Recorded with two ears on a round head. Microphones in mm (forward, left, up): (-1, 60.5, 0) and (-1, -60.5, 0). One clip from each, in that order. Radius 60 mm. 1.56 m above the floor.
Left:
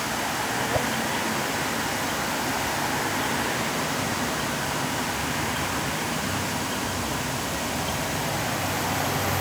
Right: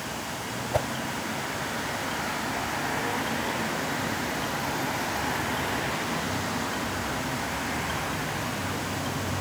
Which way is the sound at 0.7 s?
45° right (ahead or behind).